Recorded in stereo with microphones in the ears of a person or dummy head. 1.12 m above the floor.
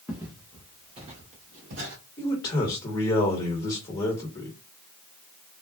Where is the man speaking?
25° left (ahead or behind), 1.6 m.